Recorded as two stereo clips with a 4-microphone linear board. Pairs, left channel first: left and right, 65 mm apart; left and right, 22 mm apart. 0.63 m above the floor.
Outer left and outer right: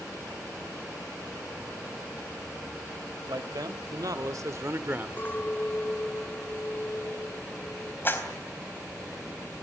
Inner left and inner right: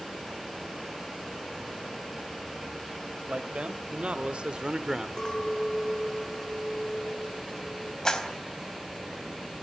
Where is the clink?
30° left (ahead or behind), 1.7 m.